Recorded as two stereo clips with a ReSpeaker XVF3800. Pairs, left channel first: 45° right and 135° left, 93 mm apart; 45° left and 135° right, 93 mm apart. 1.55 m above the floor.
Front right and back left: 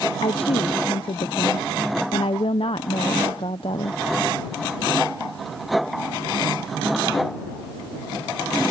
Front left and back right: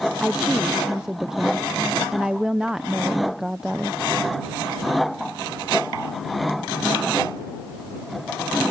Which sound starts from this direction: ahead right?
A woman speaking, at 0.2 s.